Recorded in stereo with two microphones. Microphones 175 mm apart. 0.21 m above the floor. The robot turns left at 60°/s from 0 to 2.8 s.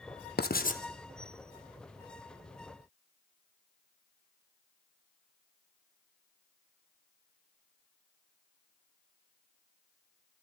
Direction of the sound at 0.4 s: 75° left (ahead or behind).